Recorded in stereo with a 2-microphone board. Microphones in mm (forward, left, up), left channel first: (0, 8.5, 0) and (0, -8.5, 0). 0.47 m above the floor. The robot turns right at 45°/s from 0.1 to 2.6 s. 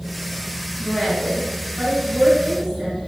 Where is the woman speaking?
120° left, 3.5 m; by 3.0 s 160° right, 3.5 m.